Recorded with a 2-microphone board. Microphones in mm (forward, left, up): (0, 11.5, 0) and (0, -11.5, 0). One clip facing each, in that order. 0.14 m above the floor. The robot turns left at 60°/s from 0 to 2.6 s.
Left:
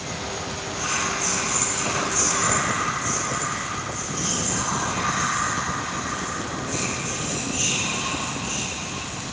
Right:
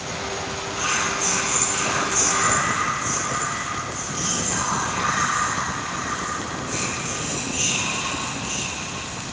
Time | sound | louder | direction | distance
0.8 | whispering | right 2 dB | 30° right | 1.6 m